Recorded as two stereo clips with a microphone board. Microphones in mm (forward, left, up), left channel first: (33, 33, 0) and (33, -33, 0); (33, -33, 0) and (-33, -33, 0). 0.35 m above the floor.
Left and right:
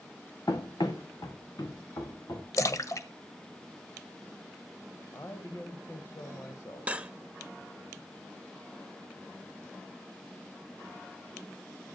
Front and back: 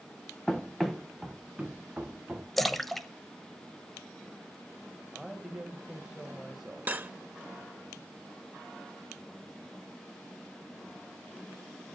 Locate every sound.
0.5 s running footsteps: 85° left, 1.2 m; by 2.5 s 110° left, 2 m
2.6 s a splash: 85° left, 0.8 m
5.1 s a woman speaking: 100° left, 1.4 m
6.9 s cutlery clinking: 140° right, 0.6 m